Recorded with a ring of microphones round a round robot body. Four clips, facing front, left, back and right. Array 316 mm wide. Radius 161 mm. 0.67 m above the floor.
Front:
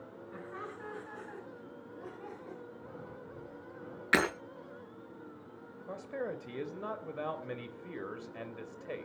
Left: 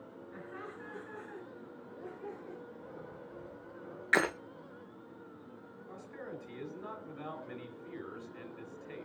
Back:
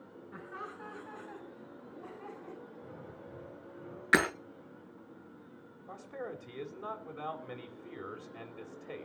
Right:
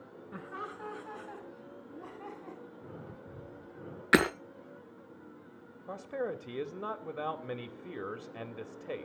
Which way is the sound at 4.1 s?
90° right.